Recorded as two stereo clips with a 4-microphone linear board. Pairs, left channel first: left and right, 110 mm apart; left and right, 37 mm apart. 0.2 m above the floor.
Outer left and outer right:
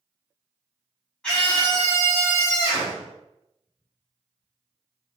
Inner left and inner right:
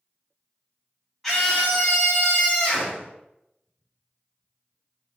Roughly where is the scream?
Centre.